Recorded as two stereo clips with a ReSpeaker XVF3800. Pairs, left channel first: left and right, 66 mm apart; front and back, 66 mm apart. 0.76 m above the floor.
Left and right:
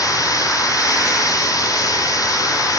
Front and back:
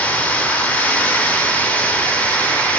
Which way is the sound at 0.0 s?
70° left.